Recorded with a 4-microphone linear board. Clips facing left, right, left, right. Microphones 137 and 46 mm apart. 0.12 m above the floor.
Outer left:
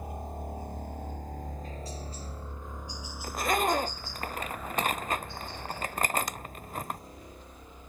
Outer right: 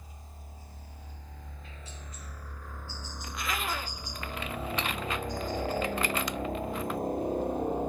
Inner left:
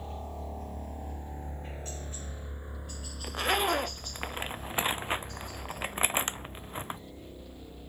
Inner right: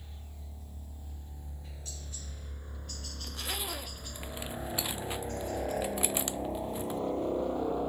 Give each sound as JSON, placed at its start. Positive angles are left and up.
{"t": 0.0, "sound": "a helicopter", "side_deg": 60}
{"t": 3.2, "sound": "a zipper", "side_deg": 45}